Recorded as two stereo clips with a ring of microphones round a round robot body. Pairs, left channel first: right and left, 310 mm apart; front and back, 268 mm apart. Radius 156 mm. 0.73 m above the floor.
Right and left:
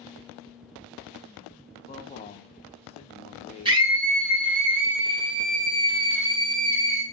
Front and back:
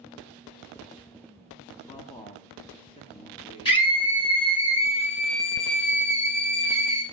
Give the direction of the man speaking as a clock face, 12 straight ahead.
2 o'clock.